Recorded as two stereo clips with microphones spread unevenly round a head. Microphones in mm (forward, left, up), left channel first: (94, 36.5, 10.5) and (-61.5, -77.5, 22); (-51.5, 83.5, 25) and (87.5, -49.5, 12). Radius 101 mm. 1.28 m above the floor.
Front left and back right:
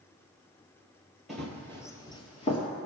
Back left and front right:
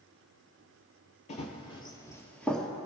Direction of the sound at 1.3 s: 130° left.